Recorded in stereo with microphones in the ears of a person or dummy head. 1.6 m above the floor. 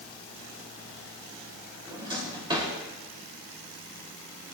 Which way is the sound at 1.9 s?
25° right (ahead or behind).